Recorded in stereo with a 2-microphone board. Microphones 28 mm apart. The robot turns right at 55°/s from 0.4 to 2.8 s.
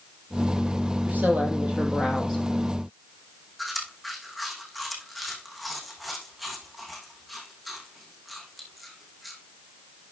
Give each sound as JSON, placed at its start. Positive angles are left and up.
{"t": 1.1, "sound": "a woman speaking", "azimuth_deg": -80, "distance_m": 4.5}
{"t": 3.6, "sound": "chewing", "side_deg": 0, "distance_m": 3.5}